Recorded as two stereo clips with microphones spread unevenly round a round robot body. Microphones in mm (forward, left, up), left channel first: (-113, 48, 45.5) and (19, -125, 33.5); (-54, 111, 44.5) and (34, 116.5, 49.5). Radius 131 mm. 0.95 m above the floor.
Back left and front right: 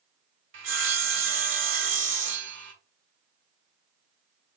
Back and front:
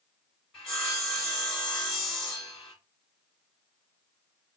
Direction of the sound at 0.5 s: 90° right.